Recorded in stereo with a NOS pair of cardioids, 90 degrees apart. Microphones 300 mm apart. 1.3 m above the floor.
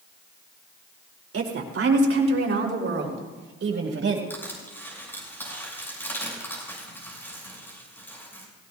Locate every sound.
1.3 s a woman speaking: 50° right, 3 m; by 4.2 s 45° right, 5 m
4.3 s crushing: 5° left, 6.5 m